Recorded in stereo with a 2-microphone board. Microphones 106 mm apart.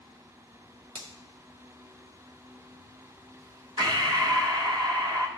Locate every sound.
0.9 s a finger snap: 60° right (ahead or behind), 1.4 m
3.8 s breathing: 40° right (ahead or behind), 0.9 m